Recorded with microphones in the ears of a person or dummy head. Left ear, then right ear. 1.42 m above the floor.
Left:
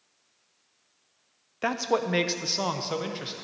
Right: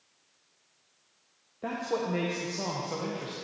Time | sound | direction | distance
1.6 | a man speaking | 50° left (ahead or behind) | 0.5 m